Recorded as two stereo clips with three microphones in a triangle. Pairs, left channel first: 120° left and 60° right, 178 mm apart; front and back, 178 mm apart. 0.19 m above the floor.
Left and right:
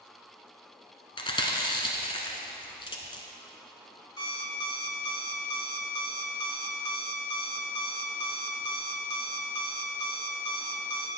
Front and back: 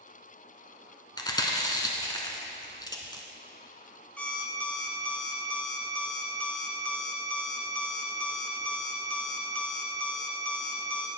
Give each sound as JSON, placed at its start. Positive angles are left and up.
{"t": 1.2, "sound": "chewing", "azimuth_deg": 65, "distance_m": 1.0}
{"t": 4.2, "sound": "an alarm clock", "azimuth_deg": 75, "distance_m": 0.9}